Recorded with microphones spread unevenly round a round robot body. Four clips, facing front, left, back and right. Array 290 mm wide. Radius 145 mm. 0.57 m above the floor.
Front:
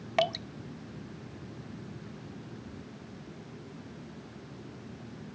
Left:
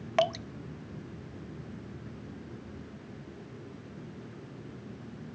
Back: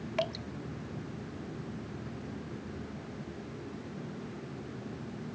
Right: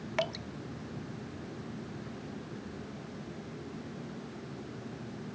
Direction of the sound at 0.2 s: 50° left.